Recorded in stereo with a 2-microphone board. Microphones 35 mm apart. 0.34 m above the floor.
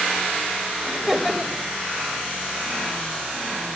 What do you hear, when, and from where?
0.9 s laughter: 10° right (ahead or behind), 1.3 m